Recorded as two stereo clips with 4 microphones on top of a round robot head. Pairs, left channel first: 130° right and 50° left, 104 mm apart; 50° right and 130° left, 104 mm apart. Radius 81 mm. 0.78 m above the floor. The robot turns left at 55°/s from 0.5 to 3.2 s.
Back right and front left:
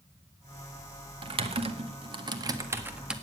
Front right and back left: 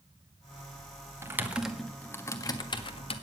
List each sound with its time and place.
1.2 s typing on a keyboard: 70° left, 1.7 m; by 3.1 s 35° right, 1.7 m